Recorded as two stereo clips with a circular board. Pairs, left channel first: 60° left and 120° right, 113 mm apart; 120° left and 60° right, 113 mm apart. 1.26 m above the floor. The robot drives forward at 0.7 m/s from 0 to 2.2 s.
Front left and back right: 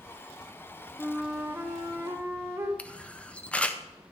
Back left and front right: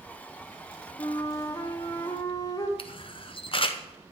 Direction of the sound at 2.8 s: 135° left.